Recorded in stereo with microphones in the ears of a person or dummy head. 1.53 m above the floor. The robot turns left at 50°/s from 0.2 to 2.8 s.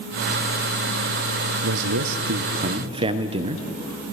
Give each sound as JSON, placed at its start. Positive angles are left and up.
{"t": 1.6, "sound": "a man speaking", "azimuth_deg": -95, "distance_m": 0.7}